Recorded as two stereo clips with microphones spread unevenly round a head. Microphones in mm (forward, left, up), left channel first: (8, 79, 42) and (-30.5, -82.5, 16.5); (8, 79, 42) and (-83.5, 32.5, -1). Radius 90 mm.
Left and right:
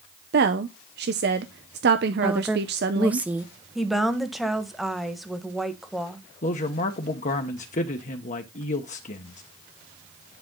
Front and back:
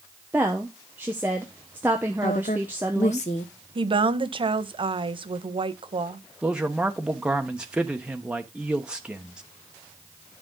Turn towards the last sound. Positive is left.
turn(degrees=125)